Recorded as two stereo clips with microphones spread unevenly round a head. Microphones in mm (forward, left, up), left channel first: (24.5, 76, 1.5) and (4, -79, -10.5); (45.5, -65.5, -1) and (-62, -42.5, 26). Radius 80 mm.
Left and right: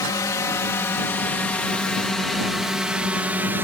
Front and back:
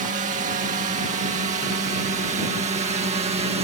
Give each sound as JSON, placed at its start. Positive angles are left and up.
{"t": 0.0, "sound": "a drone", "azimuth_deg": 150}